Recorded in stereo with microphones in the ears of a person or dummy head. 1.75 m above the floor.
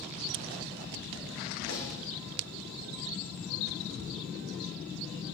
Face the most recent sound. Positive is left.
turn(degrees=75)  # may be behind; listen again after turning